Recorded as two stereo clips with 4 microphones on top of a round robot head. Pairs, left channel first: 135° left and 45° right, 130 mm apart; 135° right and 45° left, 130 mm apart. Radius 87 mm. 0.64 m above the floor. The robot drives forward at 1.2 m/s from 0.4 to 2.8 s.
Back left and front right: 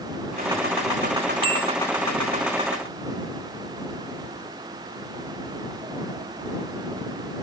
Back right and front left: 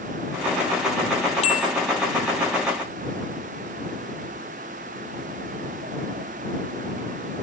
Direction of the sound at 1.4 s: 95° right.